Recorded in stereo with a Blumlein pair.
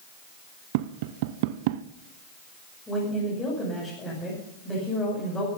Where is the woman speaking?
15° left, 6.5 m.